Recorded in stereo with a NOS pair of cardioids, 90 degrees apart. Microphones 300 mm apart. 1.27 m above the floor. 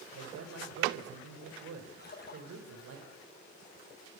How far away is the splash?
About 7.5 m.